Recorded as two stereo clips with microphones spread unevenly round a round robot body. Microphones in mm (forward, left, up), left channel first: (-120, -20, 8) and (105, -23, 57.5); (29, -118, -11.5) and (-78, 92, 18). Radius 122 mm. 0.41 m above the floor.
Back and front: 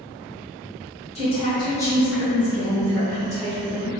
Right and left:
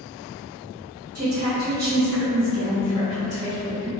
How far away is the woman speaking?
About 1.4 m.